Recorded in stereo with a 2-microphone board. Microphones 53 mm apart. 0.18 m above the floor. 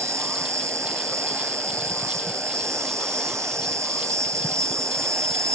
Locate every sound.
0.0 s an insect: 65° right (ahead or behind)